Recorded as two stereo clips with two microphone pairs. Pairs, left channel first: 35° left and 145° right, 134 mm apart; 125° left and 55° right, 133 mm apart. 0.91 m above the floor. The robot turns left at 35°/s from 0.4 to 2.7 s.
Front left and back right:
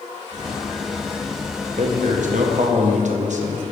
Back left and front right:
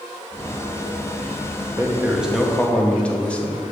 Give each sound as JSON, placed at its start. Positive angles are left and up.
{"t": 1.8, "sound": "a man speaking", "azimuth_deg": -125, "distance_m": 0.7}